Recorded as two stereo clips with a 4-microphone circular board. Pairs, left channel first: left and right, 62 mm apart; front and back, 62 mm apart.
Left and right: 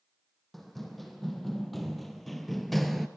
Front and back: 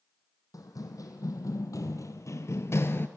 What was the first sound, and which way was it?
Running footsteps, 5° left.